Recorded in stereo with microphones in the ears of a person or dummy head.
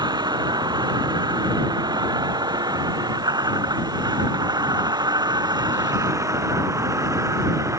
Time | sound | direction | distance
0.0 | a vehicle | 25° right (ahead or behind) | ?